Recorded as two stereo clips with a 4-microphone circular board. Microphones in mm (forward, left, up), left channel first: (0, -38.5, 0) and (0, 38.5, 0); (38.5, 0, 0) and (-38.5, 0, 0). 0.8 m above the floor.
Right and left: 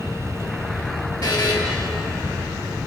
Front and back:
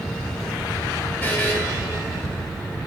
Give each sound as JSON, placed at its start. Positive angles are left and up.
{"t": 1.2, "sound": "a buzzer", "azimuth_deg": -65, "distance_m": 3.5}